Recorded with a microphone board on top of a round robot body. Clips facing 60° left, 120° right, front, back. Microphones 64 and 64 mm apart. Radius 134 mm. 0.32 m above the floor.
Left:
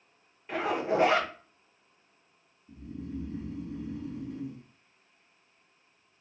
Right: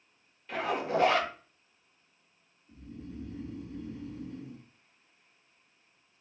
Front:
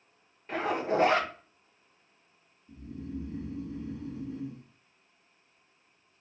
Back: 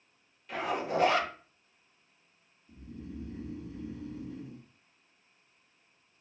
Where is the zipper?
10° left, 0.9 m.